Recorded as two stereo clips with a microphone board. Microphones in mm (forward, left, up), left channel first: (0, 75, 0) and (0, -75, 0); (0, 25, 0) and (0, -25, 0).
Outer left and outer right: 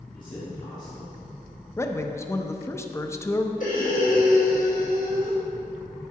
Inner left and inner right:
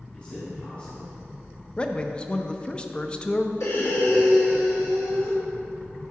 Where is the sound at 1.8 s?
20° left (ahead or behind), 0.6 m.